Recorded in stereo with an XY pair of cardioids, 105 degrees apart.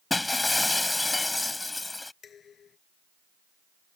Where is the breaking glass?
15° left.